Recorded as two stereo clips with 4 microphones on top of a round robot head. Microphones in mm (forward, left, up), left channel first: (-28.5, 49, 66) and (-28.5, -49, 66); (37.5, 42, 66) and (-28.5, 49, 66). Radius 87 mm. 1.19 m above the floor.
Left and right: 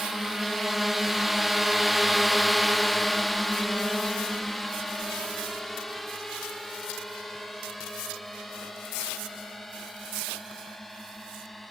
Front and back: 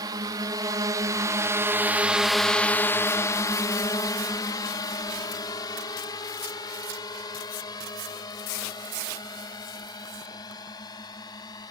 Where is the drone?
Straight behind; by 11.7 s straight ahead.